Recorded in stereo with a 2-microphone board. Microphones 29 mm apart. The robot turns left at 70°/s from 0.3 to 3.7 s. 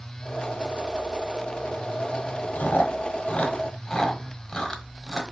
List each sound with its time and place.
2.5 s chewing: 75° left (ahead or behind), 0.9 m; by 5.2 s 20° left (ahead or behind), 0.9 m